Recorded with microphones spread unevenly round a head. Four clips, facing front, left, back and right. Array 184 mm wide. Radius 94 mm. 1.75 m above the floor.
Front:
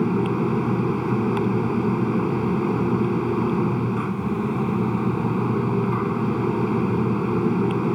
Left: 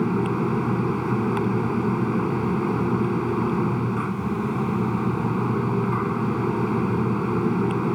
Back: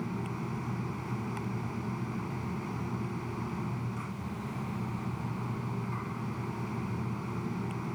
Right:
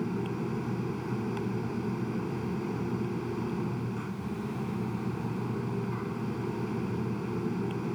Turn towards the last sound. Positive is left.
turn(degrees=30)